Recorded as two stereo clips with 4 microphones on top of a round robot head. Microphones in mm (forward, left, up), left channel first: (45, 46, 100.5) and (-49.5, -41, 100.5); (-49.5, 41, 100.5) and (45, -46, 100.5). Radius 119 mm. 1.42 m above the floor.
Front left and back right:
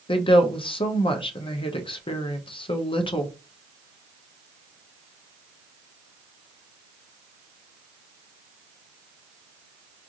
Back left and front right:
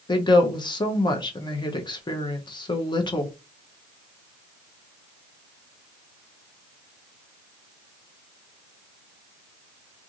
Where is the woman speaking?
85° left, 0.7 m.